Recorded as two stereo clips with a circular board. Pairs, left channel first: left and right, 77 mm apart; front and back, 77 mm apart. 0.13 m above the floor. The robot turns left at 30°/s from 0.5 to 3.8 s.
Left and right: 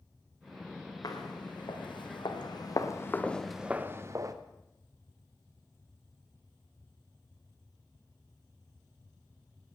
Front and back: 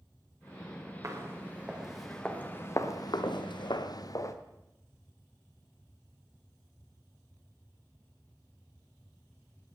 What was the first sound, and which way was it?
Footsteps, 130° left.